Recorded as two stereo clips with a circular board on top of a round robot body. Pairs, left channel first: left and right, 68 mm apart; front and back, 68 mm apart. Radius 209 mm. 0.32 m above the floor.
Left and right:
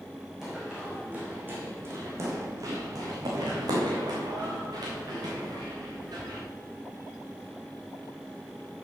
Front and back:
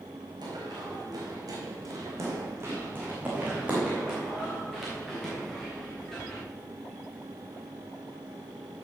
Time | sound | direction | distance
0.4 | running footsteps | 175° right | 2 m